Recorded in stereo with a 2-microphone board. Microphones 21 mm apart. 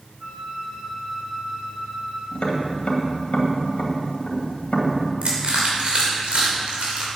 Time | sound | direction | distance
0.2 | a flute | 65° right (ahead or behind) | 4 m
2.3 | tapping | 65° left (ahead or behind) | 2 m
5.2 | crushing | 70° right (ahead or behind) | 3 m